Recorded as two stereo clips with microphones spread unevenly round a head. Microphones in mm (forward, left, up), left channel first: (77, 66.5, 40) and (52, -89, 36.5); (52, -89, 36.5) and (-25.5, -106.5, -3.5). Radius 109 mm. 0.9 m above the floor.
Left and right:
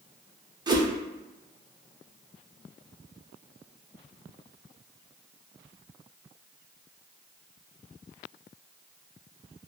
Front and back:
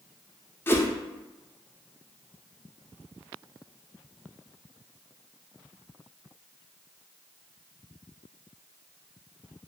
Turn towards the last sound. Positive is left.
turn(degrees=-35)